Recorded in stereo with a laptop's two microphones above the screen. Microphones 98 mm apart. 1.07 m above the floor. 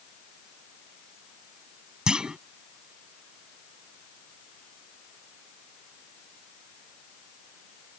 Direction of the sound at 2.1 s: 10° right (ahead or behind).